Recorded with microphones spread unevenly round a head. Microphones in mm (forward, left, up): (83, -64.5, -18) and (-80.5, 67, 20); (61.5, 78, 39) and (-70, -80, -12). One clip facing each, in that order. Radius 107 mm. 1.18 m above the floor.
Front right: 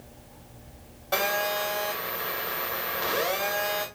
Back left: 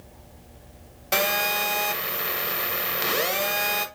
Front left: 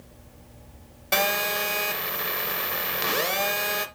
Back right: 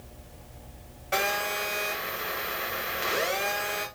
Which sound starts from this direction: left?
A phone buzzing, at 1.1 s.